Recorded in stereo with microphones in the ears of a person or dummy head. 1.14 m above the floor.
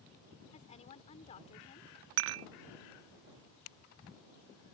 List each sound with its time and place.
0.5 s a woman speaking: 35° left (ahead or behind)
2.2 s dishes clattering: 70° right (ahead or behind)